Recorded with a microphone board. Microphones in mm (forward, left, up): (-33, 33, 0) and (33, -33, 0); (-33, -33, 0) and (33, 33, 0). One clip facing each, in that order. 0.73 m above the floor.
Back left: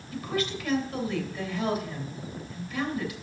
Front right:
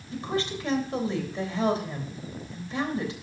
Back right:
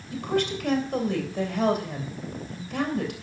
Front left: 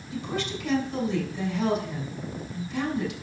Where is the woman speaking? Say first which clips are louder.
Front right 1 dB, back right 5 dB; 105° right, 3 m.